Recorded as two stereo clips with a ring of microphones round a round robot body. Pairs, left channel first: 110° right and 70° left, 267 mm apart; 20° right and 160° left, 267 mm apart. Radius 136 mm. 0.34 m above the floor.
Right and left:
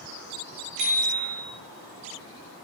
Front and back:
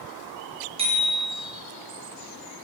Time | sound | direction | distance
0.8 | a bicycle bell | 85° left | 5 m